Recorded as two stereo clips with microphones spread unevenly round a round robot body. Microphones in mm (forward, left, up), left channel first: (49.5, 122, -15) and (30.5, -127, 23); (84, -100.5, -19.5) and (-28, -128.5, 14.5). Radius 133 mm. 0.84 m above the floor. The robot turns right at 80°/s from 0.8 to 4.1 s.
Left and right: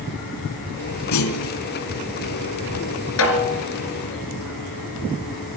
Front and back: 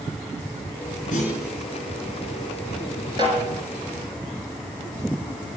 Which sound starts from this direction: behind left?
A snare drum, at 3.2 s.